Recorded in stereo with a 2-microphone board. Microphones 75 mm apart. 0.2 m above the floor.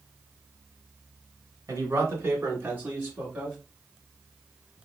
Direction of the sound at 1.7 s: 40° right (ahead or behind).